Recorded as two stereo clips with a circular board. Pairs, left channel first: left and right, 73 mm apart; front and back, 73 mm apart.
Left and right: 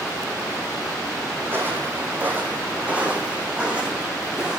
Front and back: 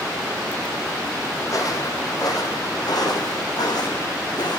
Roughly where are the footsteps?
Ahead right.